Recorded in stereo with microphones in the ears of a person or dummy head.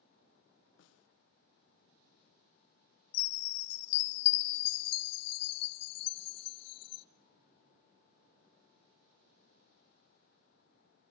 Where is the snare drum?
75° left (ahead or behind), 0.9 m.